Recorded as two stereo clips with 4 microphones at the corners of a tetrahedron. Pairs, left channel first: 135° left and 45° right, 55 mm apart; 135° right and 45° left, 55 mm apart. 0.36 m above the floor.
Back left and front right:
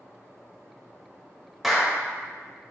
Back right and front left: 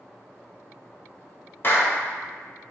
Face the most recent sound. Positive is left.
turn(degrees=-130)